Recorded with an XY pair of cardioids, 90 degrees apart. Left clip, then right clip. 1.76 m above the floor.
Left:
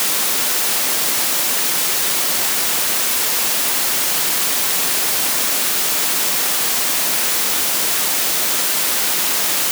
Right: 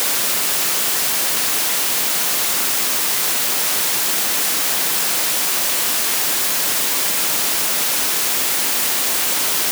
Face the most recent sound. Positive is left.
No sound to turn to.